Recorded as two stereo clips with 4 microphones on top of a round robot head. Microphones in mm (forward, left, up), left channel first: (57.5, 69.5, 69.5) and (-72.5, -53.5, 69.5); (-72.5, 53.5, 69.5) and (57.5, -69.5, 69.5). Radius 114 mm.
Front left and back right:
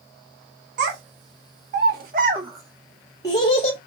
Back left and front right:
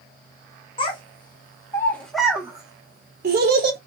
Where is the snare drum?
I don't hear a snare drum.